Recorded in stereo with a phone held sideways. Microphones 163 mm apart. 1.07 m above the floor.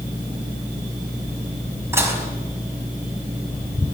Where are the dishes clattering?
15° right (ahead or behind), 5 m.